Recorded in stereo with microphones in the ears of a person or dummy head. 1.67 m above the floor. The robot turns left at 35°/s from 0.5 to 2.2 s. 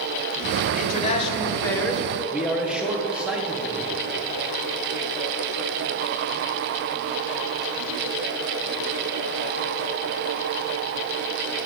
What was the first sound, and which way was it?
A man speaking, 45° left.